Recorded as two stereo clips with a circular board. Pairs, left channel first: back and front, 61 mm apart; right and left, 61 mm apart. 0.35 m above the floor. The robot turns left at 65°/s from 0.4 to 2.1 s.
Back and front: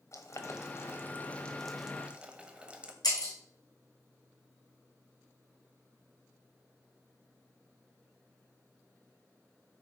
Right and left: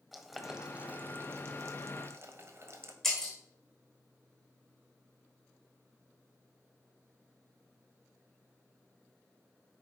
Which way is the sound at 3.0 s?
175° right.